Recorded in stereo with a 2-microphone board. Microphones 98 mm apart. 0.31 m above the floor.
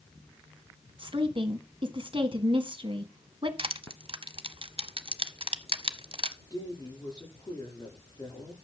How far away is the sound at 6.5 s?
About 9.5 m.